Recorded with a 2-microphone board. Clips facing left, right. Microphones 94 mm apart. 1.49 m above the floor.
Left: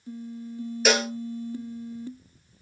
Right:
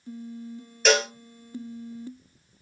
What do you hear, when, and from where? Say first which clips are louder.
0.8 s a cowbell: right 2 dB; 5° left (ahead or behind), 0.7 m